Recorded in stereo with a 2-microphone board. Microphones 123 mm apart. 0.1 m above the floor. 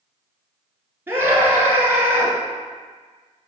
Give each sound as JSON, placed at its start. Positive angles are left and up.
{"t": 1.1, "sound": "a scream", "side_deg": -20, "distance_m": 1.3}